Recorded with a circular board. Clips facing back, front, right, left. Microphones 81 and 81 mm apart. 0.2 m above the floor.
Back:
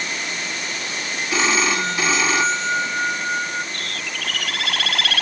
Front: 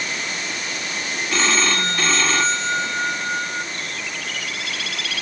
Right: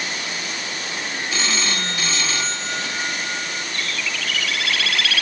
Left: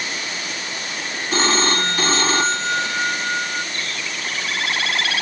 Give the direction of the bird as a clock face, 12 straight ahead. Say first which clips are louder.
Even, right 1 dB; 7 o'clock.